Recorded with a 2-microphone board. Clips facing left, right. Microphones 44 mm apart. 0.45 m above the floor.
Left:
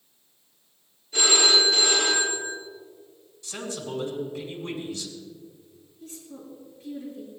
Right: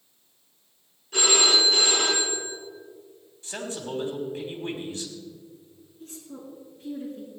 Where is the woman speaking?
75° right (ahead or behind), 5 m.